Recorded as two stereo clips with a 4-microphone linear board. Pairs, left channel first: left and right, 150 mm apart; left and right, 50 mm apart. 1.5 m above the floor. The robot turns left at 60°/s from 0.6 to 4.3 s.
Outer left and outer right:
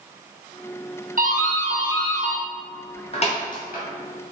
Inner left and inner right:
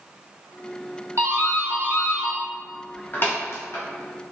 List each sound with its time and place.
1.2 s a doorbell: 70° right (ahead or behind), 0.6 m; by 3.8 s 75° left (ahead or behind), 0.6 m